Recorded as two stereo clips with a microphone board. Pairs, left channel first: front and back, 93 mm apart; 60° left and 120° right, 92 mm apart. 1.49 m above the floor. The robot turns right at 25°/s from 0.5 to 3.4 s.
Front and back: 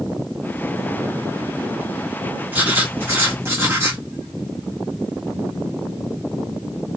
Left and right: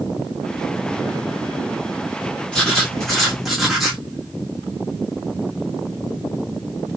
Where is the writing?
125° left, 1.1 m; by 4.0 s 150° left, 1.1 m.